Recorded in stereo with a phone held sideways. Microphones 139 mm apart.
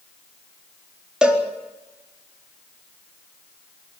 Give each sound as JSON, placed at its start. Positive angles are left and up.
{"t": 1.2, "sound": "a cowbell", "side_deg": -5, "distance_m": 4.0}